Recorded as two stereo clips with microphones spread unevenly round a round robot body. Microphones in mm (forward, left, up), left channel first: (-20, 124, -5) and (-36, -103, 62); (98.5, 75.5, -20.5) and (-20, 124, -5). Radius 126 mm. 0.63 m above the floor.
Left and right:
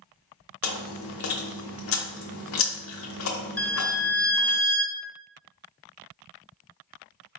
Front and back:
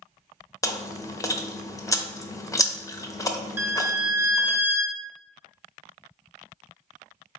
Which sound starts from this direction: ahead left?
Chewing, at 0.6 s.